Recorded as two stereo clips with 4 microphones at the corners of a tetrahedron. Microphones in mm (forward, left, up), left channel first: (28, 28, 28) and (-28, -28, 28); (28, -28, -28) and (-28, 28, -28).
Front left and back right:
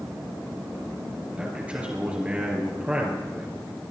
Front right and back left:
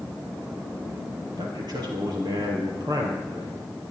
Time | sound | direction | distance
1.4 | a man speaking | 150° left | 3.5 m